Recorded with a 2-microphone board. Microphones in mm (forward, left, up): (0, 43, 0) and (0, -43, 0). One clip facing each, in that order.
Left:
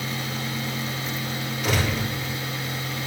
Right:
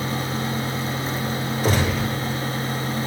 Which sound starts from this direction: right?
A gunshot, at 1.6 s.